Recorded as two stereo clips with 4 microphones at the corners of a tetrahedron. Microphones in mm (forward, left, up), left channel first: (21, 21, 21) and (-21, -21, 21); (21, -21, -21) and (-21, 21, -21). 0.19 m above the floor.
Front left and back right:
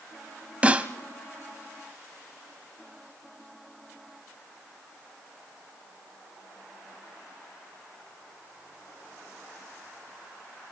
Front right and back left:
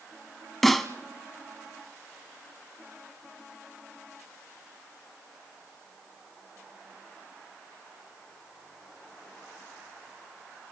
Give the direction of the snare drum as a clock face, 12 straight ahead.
4 o'clock.